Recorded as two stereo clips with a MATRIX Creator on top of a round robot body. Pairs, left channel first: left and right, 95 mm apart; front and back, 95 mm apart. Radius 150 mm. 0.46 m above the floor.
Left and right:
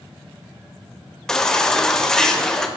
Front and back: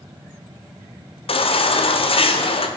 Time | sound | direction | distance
1.3 | a baby crying | 5° left | 1.5 m